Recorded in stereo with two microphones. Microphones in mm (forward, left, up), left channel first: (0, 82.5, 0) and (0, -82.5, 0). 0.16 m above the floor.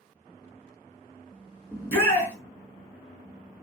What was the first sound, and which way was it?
A shout, 15° left (ahead or behind).